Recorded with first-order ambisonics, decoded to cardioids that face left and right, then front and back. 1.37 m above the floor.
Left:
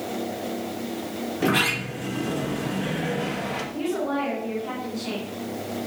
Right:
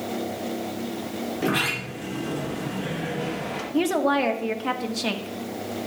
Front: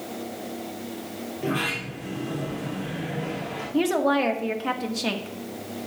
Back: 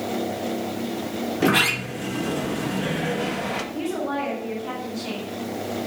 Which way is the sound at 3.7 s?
55° right.